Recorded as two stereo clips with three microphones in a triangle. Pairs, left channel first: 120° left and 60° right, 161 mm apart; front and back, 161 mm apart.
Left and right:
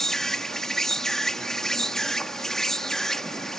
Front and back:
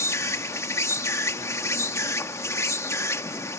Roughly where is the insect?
Ahead left.